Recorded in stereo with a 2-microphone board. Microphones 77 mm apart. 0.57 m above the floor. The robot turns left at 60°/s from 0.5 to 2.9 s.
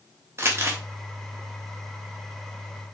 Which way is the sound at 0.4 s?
35° right (ahead or behind).